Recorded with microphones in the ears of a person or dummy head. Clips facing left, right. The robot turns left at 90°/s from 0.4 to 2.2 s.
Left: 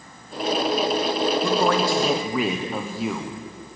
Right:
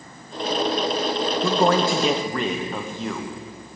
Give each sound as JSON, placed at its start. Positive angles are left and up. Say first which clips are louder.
{"t": 1.4, "sound": "a man speaking", "louder": "right 4 dB", "azimuth_deg": -115, "distance_m": 0.8}